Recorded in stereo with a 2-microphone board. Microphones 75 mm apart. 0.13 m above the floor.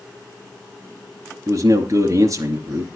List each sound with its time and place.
1.5 s a man speaking: 45° right (ahead or behind), 2.5 m